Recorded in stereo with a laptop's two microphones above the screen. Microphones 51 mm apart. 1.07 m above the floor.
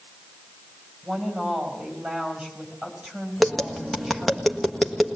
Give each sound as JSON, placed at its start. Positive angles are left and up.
{"t": 1.0, "sound": "a woman speaking", "side_deg": -20, "distance_m": 4.5}
{"t": 3.4, "sound": "tapping", "side_deg": 0, "distance_m": 1.5}